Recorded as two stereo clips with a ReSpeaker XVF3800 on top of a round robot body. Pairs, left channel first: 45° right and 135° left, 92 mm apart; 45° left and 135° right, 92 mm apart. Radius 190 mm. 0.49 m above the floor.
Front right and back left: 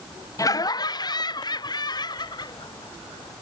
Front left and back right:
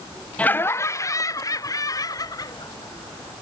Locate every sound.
0.4 s laughter: 25° right; by 3.3 s 5° right